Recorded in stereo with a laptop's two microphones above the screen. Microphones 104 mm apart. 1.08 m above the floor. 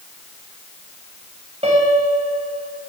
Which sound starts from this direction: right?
A piano, at 1.6 s.